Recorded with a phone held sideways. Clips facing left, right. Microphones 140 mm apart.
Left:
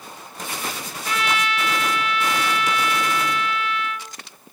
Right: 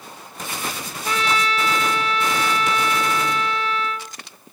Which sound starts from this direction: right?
A trumpet, at 1.1 s.